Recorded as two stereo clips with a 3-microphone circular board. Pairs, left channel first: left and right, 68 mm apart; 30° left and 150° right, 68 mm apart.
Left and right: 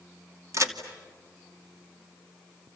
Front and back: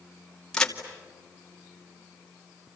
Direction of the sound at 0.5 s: 50° right.